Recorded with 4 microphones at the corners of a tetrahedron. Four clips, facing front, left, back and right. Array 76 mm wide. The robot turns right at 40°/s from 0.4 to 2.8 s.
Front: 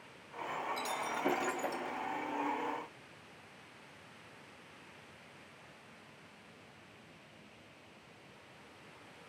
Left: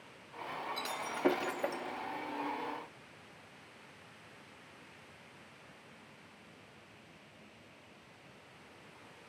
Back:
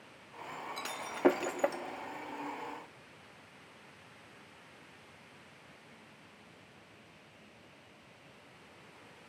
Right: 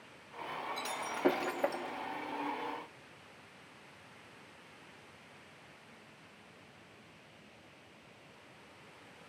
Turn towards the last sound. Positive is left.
turn(degrees=-115)